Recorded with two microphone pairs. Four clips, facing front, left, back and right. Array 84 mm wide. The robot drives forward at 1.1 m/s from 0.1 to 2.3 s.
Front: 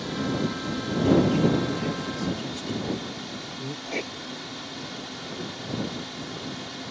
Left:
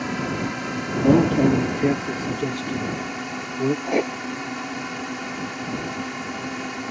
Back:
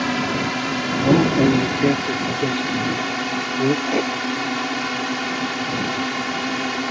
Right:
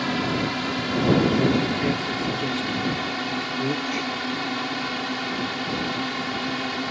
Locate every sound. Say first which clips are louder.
0.0 s a drone: right 2 dB, back 6 dB; 170° right
1.0 s a man speaking: left 4 dB, back 5 dB; 145° left; by 3.8 s 155° left
3.9 s writing: left 5 dB, back 11 dB; 115° left